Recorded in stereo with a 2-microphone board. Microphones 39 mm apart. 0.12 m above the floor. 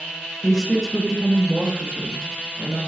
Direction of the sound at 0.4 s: 15° left (ahead or behind).